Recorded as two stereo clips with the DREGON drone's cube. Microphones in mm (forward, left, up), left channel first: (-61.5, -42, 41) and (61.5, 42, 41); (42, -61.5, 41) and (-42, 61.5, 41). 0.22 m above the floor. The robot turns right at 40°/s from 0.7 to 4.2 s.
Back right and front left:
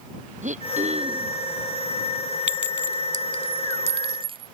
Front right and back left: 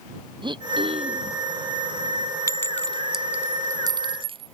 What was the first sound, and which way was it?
Throat clearing, 65° left.